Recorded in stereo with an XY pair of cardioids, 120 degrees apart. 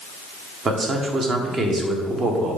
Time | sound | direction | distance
0.7 | a man speaking | 40° right | 1.3 m